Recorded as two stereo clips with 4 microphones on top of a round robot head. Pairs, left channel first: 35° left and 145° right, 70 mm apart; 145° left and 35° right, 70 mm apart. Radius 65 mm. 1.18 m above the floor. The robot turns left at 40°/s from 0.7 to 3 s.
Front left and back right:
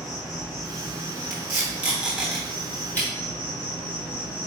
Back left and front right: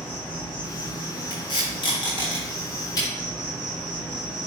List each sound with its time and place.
0.0 s an insect: 125° left, 2.5 m; by 4.5 s 35° left, 2.5 m
1.3 s tape being pulled: 170° left, 1.2 m; by 3.1 s 105° left, 1.2 m